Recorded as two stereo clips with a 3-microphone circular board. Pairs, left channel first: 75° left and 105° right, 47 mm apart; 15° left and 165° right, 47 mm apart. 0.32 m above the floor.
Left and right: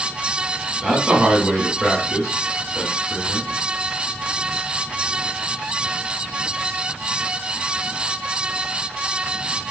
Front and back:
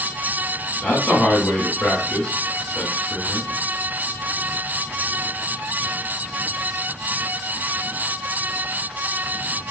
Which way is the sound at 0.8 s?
45° right.